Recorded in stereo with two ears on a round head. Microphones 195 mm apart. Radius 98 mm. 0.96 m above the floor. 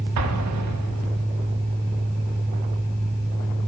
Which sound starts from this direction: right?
An explosion, at 0.2 s.